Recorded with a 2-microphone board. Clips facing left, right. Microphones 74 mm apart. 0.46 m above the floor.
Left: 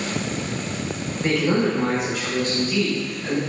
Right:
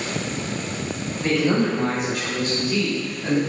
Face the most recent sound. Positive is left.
turn(degrees=-30)  # may be behind; listen again after turning